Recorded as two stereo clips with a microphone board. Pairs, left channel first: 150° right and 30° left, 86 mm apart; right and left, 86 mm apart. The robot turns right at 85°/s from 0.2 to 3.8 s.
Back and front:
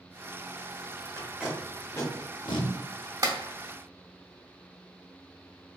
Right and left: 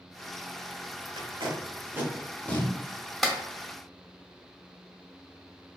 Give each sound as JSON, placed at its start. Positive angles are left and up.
{"t": 1.2, "sound": "tape being pulled", "azimuth_deg": 85, "distance_m": 0.7}
{"t": 3.2, "sound": "a clap", "azimuth_deg": 0, "distance_m": 0.7}